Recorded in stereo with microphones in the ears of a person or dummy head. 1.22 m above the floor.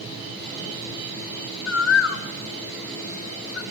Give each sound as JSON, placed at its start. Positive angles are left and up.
{"t": 1.7, "sound": "a bird", "side_deg": 75, "distance_m": 1.1}